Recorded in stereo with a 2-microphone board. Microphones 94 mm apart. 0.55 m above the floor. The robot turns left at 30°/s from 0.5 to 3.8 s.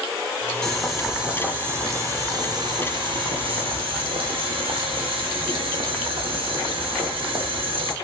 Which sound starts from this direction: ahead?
Boiling, at 0.6 s.